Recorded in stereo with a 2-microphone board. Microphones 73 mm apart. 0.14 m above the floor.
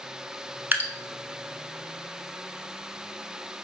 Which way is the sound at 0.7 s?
25° right (ahead or behind).